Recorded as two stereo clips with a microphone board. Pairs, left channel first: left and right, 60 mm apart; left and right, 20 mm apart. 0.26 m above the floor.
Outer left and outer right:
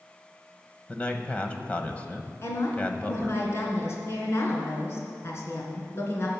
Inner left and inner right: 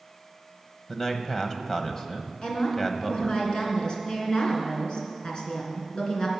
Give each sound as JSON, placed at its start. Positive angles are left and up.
{"t": 0.9, "sound": "a man speaking", "side_deg": 20, "distance_m": 1.1}
{"t": 2.4, "sound": "a woman speaking", "side_deg": 45, "distance_m": 3.0}